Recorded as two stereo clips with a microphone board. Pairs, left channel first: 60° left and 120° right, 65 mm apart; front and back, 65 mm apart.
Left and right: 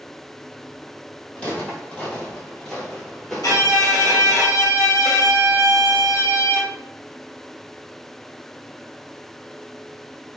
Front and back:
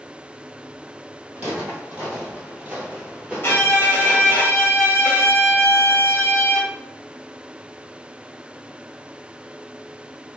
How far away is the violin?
About 1.3 m.